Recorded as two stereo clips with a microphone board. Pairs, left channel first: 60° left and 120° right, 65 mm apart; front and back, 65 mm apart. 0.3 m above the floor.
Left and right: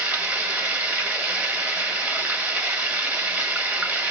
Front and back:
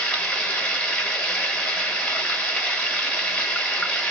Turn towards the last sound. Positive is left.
turn(degrees=-60)